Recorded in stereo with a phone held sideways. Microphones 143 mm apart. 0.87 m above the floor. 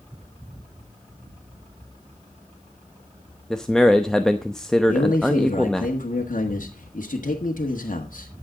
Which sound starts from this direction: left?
A man speaking, at 4.9 s.